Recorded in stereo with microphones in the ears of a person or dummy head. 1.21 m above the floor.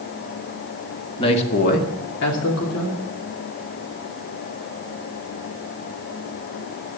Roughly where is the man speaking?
Left.